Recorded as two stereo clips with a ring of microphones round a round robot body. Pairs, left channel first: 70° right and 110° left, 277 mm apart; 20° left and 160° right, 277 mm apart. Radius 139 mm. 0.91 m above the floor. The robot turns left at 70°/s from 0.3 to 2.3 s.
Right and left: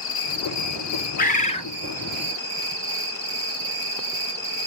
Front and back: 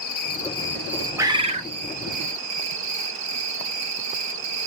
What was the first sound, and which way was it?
An insect, 30° right.